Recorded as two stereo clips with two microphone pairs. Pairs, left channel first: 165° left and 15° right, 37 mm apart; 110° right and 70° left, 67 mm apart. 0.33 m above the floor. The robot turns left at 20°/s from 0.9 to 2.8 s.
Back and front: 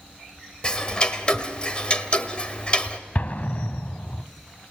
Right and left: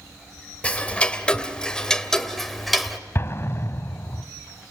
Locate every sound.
0.6 s ticking: 165° right, 1.4 m; by 3.0 s 160° left, 1.4 m
3.1 s an explosion: 160° right, 1.1 m